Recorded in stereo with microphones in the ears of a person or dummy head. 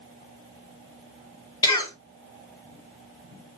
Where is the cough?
20° left (ahead or behind), 1.2 m.